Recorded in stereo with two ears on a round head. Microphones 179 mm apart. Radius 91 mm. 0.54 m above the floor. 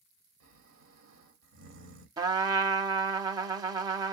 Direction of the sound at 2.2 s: 20° right (ahead or behind).